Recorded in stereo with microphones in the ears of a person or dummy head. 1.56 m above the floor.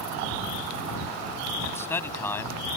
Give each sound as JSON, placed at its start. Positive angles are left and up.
{"t": 1.6, "sound": "a man speaking", "side_deg": 15}